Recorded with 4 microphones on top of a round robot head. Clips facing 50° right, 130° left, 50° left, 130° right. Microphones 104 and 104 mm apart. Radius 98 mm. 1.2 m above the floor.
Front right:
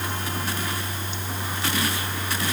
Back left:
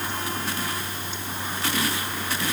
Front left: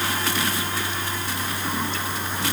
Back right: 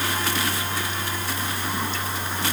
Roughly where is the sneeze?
I don't hear a sneeze.